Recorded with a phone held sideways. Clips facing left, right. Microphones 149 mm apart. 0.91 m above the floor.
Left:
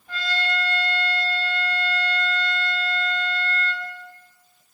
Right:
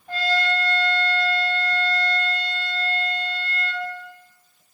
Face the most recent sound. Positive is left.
turn(degrees=-40)  # may be behind; listen again after turning